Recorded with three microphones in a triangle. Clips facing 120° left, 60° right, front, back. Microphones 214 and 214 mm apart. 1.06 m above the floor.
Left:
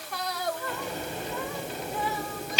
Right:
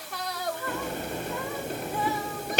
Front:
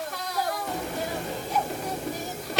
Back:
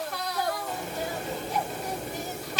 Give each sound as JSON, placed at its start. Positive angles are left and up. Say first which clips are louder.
{"t": 0.7, "sound": "a sliding door", "louder": "right 2 dB, front 2 dB", "azimuth_deg": -25, "distance_m": 1.9}